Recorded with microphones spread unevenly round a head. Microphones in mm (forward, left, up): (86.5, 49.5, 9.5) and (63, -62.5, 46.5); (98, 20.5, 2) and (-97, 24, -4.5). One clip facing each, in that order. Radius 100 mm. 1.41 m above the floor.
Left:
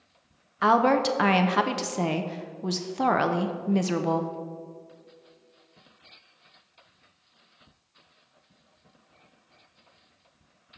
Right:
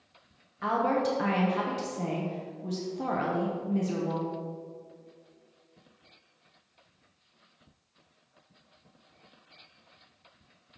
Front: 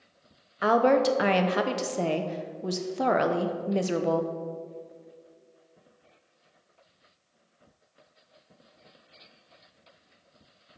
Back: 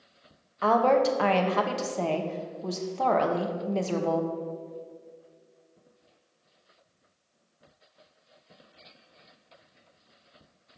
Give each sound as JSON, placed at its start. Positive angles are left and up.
{"t": 0.6, "sound": "a woman speaking", "azimuth_deg": 75, "distance_m": 0.6}